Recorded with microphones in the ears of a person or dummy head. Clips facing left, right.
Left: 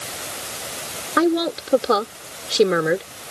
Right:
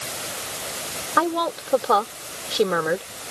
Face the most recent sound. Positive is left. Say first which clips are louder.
# left 5 dB
turn(degrees=30)  # may be behind; listen again after turning